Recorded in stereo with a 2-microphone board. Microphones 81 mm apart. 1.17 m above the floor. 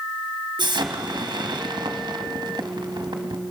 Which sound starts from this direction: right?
An explosion, at 0.6 s.